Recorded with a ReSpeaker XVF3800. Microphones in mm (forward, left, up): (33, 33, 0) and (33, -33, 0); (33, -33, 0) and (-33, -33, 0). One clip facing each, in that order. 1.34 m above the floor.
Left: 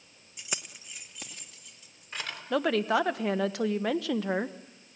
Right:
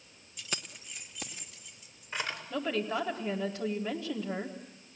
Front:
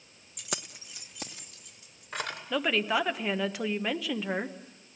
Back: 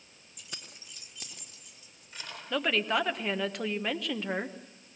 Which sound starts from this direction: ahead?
Keys jangling, at 0.4 s.